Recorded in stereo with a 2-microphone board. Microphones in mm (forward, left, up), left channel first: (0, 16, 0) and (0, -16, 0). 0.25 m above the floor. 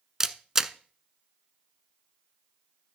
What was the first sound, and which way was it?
A camera shutter, 15° right (ahead or behind).